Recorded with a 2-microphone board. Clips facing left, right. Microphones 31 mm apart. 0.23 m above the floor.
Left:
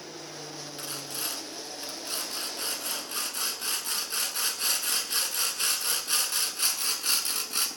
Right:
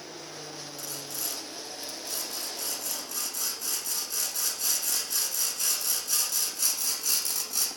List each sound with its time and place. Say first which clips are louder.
0.8 s sawing: left 3 dB; 40° left (ahead or behind), 0.6 m